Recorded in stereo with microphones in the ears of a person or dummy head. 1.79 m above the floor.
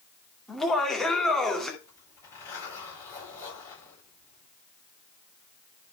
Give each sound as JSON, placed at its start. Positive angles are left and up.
{"t": 0.5, "sound": "laughter", "side_deg": 5, "distance_m": 2.0}
{"t": 1.8, "sound": "a zipper", "side_deg": 15, "distance_m": 9.0}